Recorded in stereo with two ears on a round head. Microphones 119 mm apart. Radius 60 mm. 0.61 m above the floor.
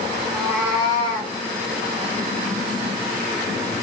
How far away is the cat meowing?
About 2 m.